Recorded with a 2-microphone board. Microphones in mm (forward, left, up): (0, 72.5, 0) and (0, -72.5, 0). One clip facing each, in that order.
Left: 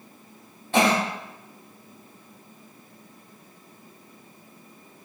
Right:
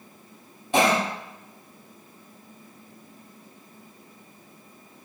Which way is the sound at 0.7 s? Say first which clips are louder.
Even; 15° right (ahead or behind).